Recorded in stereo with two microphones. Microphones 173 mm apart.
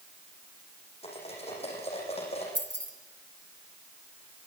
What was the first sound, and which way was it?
Cutlery clinking, 35° left (ahead or behind).